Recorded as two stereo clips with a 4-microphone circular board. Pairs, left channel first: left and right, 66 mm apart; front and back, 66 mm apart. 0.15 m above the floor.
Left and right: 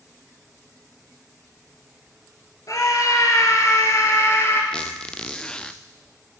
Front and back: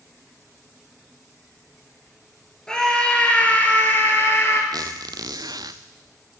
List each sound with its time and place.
2.7 s a scream: 80° left, 3 m; by 4.6 s 45° left, 3.5 m
4.7 s a squeak: 165° left, 0.7 m